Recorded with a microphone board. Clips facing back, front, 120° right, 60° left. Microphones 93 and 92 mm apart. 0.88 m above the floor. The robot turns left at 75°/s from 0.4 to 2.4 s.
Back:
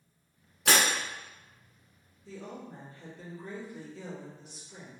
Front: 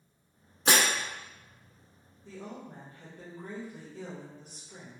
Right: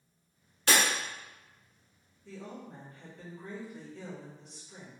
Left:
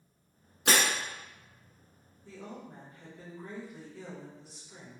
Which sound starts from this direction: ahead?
A woman speaking, at 2.2 s.